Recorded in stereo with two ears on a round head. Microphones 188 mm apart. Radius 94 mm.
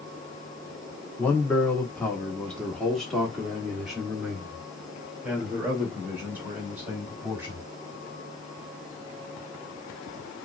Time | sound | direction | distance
1.2 | a man speaking | 10° left (ahead or behind) | 1.4 m